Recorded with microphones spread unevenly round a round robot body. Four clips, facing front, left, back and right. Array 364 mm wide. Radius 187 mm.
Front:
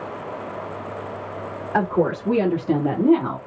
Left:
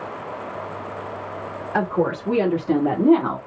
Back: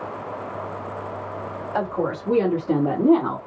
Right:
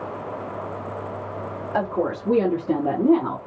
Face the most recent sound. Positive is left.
turn(degrees=120)